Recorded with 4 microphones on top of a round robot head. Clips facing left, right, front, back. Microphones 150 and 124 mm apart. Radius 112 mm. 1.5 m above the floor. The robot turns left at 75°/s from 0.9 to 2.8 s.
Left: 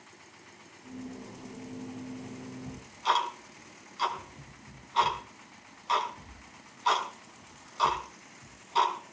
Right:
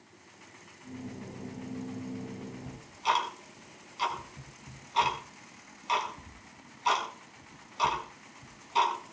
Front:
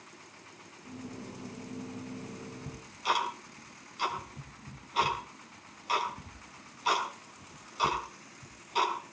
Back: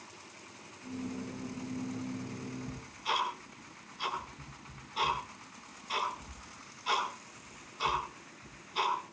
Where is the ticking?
10° right, 6.5 m; by 9.1 s 20° right, 6.5 m.